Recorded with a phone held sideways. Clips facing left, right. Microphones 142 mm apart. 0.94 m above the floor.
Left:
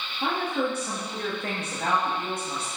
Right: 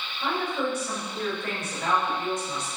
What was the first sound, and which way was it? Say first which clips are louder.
A woman speaking: left 1 dB; 60° left (ahead or behind).